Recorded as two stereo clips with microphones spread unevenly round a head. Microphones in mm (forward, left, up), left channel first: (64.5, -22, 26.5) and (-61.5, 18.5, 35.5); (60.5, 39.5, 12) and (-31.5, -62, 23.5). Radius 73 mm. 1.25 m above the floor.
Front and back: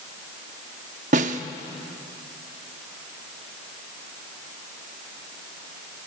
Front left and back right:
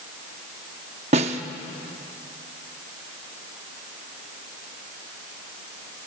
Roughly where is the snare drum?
Behind.